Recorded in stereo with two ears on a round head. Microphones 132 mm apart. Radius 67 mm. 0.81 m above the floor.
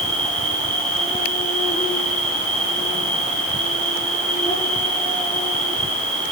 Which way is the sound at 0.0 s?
20° left (ahead or behind).